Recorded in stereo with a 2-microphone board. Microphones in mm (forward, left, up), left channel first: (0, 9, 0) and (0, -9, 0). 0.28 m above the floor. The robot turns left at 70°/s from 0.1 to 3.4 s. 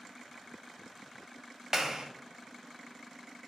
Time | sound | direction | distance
1.7 | a clap | 20° right (ahead or behind) | 1.0 m